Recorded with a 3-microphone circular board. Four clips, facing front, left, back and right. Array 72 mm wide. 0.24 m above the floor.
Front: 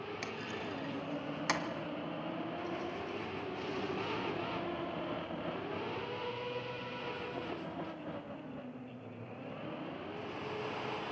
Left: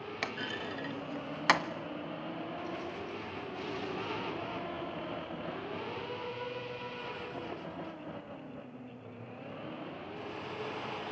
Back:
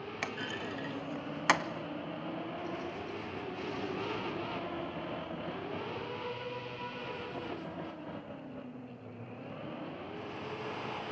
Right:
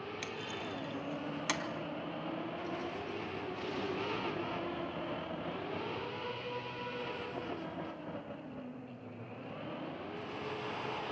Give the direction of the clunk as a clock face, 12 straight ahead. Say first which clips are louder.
Left 3 dB, back 2 dB; 8 o'clock.